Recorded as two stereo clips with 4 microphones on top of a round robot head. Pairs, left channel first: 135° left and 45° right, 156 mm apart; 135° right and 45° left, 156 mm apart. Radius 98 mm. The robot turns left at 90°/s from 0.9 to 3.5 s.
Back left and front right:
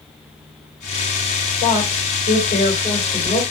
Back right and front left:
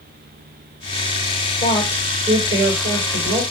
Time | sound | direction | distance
1.6 | a woman speaking | 175° left | 2.5 m